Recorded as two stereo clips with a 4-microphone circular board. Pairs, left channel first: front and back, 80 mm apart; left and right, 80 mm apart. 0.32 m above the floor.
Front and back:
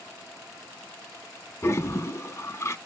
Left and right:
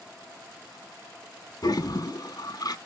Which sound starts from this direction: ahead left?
A toilet flushing, at 1.6 s.